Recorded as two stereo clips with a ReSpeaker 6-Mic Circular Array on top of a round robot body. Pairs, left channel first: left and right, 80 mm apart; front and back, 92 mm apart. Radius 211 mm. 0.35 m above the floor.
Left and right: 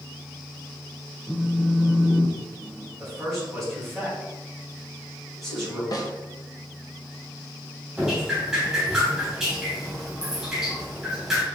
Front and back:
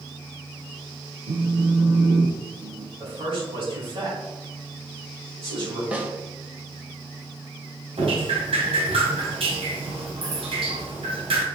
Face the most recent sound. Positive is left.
turn(degrees=-170)